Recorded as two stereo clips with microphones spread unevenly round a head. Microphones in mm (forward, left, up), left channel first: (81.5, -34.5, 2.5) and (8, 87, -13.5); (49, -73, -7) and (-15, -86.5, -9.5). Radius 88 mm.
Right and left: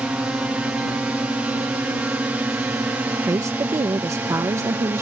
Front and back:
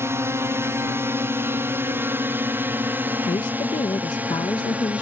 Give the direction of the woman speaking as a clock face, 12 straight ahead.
10 o'clock.